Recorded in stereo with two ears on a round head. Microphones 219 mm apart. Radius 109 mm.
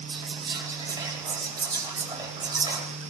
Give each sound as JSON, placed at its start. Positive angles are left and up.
{"t": 0.1, "sound": "whispering", "side_deg": -20, "distance_m": 3.5}